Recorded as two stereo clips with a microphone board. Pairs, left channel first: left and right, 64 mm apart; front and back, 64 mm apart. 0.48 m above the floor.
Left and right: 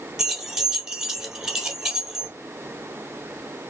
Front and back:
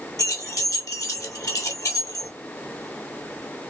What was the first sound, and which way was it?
Keys jangling, 10° right.